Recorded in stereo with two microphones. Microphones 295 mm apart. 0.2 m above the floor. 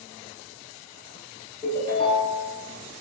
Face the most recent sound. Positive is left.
turn(degrees=20)  # may be behind; listen again after turning